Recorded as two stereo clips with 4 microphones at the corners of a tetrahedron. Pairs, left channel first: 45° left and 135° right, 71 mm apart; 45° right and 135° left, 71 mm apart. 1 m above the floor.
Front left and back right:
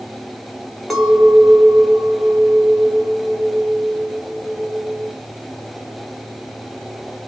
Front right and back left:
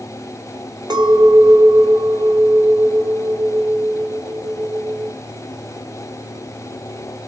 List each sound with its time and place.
0.9 s a clink: 135° left, 1.2 m